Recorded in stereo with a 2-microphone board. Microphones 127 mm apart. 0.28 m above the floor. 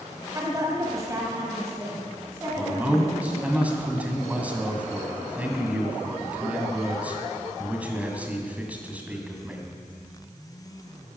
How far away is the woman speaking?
About 1.8 m.